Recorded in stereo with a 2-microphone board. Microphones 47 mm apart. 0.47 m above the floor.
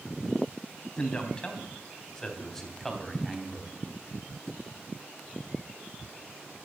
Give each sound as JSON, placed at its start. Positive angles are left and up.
{"t": 1.0, "sound": "a man speaking", "side_deg": 20, "distance_m": 3.0}